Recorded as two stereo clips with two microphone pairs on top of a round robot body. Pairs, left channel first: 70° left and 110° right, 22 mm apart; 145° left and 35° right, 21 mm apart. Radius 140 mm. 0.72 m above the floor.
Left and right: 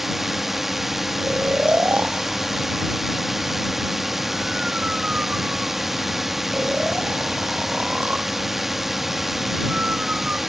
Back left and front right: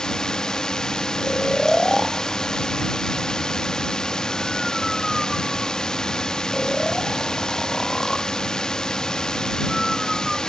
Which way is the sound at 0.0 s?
175° left.